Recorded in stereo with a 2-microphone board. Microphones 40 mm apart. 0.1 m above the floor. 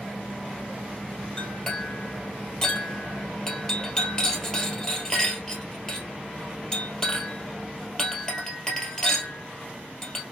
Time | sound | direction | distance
1.4 | a clink | 20° left (ahead or behind) | 2 m